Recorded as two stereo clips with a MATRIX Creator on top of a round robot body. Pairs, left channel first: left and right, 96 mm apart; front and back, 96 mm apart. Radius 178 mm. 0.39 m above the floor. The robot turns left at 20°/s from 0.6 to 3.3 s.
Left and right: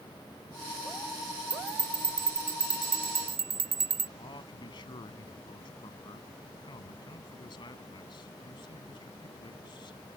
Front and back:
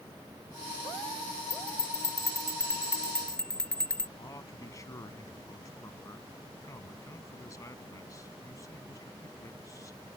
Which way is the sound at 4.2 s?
55° left.